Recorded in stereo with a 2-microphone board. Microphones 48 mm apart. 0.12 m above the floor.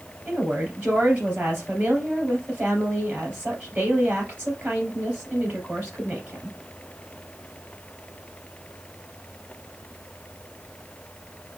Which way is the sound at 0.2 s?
35° right (ahead or behind).